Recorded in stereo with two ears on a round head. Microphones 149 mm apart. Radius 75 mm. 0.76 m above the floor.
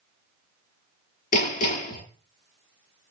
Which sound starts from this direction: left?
Hammering, at 1.3 s.